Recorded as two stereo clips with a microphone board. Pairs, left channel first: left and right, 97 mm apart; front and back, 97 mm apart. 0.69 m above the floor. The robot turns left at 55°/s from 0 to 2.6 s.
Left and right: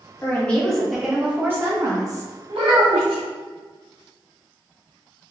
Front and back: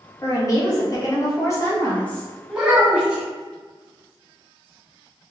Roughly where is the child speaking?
Right.